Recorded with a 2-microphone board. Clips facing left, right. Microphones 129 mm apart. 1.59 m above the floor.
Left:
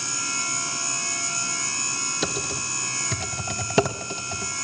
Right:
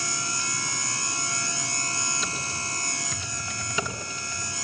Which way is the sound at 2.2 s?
70° left (ahead or behind).